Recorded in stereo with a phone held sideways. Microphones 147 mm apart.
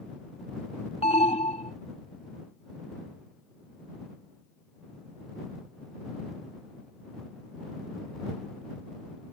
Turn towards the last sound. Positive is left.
turn(degrees=40)  # may be behind; listen again after turning